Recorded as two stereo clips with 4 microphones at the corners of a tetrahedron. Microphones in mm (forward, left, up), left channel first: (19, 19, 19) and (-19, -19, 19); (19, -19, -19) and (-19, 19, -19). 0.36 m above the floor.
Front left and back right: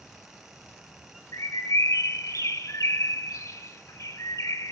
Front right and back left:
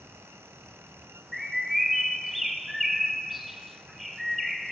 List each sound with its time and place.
1.3 s a bird: 45° left, 0.6 m